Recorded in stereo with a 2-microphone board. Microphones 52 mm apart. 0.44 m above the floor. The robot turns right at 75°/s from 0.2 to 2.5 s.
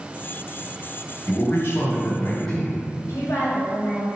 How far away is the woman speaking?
About 2.5 m.